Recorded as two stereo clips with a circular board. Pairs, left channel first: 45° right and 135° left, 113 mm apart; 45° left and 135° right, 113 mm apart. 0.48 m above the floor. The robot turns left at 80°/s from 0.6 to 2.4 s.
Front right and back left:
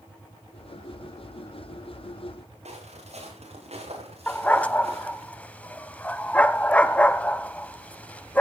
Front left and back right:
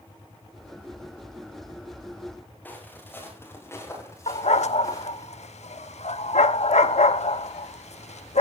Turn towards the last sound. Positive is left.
turn(degrees=35)